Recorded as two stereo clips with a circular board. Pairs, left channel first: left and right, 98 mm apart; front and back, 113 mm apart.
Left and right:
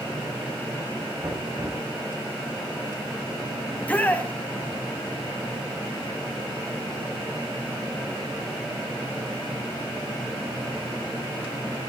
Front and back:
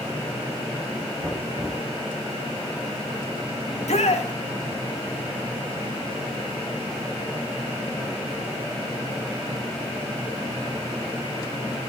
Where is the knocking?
125° right, 8 m.